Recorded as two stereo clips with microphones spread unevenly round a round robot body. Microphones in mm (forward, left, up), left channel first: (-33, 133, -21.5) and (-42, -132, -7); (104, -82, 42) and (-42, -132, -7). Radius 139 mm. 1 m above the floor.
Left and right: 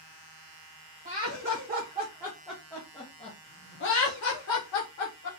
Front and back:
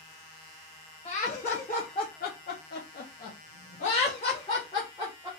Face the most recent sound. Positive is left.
turn(degrees=105)